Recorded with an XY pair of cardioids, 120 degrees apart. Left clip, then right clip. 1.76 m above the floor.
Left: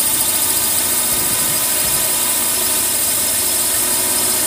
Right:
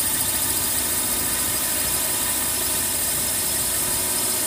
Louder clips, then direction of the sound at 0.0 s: Left 6 dB; 40° left.